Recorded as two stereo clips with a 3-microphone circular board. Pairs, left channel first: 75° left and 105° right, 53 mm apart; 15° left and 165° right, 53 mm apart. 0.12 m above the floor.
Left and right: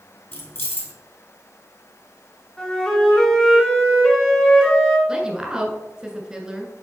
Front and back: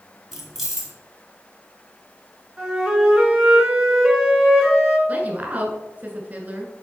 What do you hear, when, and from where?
0.3 s keys jangling: 115° left, 1.8 m
2.6 s a flute: 135° left, 1.7 m
5.1 s a woman speaking: 165° right, 1.3 m